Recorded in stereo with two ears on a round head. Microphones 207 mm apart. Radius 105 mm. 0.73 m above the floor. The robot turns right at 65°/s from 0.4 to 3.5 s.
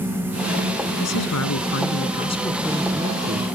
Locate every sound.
1.0 s a man speaking: 70° left; by 3.5 s 130° right